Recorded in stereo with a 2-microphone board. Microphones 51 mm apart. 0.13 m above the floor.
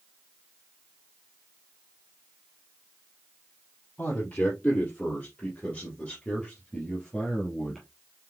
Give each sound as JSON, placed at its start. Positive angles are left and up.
{"t": 4.0, "sound": "a man speaking", "side_deg": 35, "distance_m": 3.5}